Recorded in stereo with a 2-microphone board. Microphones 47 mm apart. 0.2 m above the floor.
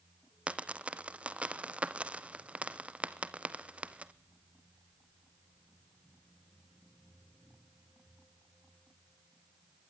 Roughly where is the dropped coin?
Right.